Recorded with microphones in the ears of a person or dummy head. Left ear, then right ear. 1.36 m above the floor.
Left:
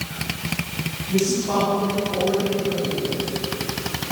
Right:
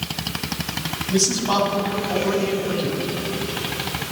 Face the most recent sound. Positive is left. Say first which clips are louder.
# right 2 dB
turn(degrees=-40)  # may be behind; listen again after turning